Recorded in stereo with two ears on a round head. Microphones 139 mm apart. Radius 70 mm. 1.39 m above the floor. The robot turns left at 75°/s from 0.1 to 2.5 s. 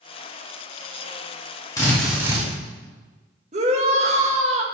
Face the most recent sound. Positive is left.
turn(degrees=-40)  # may be behind; listen again after turning